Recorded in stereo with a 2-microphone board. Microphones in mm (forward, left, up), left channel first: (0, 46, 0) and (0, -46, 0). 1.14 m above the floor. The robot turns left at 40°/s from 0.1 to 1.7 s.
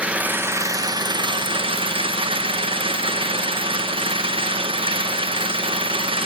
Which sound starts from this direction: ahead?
An engine running, at 0.0 s.